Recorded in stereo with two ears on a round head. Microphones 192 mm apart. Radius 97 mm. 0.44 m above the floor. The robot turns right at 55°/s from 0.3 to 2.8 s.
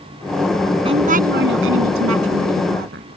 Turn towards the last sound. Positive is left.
turn(degrees=-45)